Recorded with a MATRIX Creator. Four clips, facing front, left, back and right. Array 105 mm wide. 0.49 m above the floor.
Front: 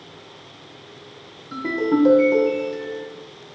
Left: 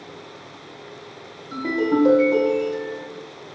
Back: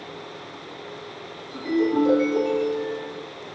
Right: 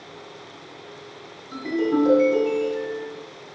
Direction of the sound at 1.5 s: 40° left.